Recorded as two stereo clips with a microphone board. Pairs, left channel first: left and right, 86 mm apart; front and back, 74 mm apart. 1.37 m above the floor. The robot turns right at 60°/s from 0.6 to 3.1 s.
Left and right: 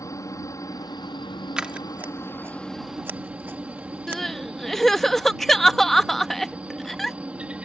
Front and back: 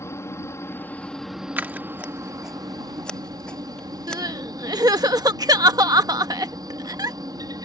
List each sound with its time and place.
0.0 s a helicopter: 45° left; by 7.6 s 165° right
1.6 s scissors: 160° right; by 4.2 s 65° right
4.1 s crying: 175° left